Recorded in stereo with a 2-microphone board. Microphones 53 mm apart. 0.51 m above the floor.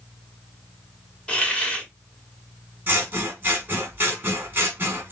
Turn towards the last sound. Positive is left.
turn(degrees=-35)  # may be behind; listen again after turning